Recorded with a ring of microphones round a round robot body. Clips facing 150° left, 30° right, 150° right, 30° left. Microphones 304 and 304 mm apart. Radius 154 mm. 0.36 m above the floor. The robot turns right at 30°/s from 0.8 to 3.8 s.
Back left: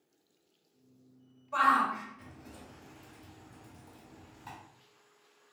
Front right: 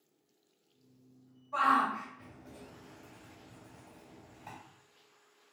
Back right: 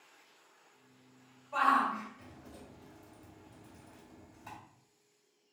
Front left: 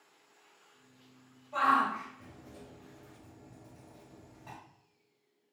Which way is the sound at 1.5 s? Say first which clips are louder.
Even, front left 1 dB; 165° left.